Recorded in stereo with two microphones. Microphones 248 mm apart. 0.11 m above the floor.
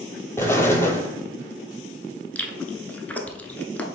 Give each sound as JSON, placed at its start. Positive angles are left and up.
{"t": 0.4, "sound": "an explosion", "side_deg": 10, "distance_m": 0.7}
{"t": 2.4, "sound": "chewing", "side_deg": 5, "distance_m": 0.5}